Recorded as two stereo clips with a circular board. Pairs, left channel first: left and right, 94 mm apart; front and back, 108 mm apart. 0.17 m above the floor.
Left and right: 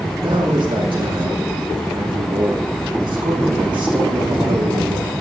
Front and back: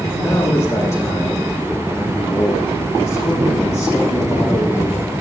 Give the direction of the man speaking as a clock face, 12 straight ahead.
2 o'clock.